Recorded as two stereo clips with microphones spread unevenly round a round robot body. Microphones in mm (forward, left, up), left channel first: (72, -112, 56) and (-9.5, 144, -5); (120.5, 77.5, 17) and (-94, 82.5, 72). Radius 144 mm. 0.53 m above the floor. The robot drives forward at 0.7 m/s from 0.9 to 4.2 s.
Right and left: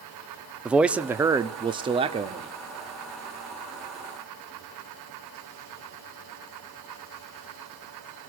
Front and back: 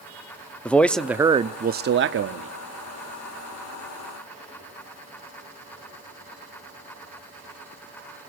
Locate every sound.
0.7 s a man speaking: 50° left, 0.8 m; by 2.5 s 160° left, 1.1 m